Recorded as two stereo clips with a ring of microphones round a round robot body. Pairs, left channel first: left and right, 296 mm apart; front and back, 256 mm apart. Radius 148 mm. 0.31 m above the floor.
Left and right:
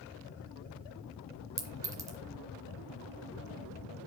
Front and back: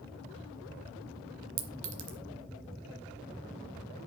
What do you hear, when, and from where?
1.6 s a clink: 170° right, 1.7 m